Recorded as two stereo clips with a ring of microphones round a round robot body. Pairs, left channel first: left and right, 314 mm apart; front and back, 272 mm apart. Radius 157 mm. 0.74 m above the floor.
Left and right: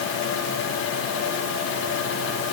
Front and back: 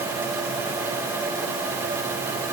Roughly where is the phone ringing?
No phone ringing in this recording.